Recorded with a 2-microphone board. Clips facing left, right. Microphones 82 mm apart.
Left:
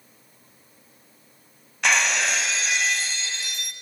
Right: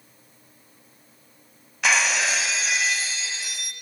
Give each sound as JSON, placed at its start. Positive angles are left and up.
{"t": 1.8, "sound": "breaking glass", "side_deg": 0, "distance_m": 0.9}